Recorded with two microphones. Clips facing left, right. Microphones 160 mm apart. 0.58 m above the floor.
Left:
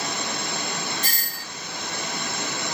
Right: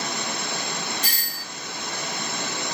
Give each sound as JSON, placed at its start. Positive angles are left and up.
{"t": 1.0, "sound": "a doorbell", "side_deg": 45, "distance_m": 1.4}